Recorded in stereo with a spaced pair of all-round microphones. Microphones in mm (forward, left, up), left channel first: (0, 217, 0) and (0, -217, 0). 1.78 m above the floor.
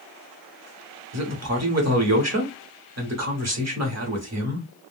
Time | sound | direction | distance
1.1 | a man speaking | 35° right (ahead or behind) | 1.0 m